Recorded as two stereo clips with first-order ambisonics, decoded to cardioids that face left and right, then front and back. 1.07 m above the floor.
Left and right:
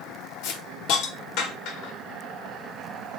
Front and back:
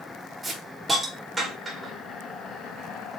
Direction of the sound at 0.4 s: 100° left.